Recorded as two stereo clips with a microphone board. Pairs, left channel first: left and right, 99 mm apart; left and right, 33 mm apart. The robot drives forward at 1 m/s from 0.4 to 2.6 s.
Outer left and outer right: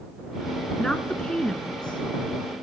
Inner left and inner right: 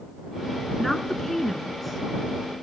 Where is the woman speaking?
10° left (ahead or behind), 1.1 m; by 2.5 s 5° left (ahead or behind), 1.7 m.